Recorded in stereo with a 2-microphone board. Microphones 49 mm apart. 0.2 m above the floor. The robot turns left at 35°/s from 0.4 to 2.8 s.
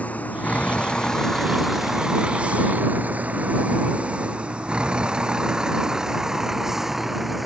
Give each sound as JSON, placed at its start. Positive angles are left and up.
{"t": 0.0, "sound": "a vehicle", "side_deg": 30}